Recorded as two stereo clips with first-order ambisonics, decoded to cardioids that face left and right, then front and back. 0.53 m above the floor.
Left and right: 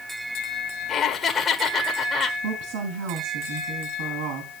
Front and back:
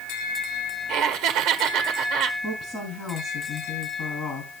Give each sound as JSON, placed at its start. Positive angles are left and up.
{"t": 0.9, "sound": "laughter", "azimuth_deg": 150, "distance_m": 1.4}
{"t": 2.4, "sound": "a woman speaking", "azimuth_deg": -70, "distance_m": 4.0}